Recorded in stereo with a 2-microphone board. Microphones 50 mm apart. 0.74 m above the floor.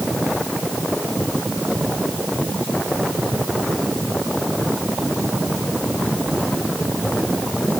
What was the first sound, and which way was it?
Only background noise.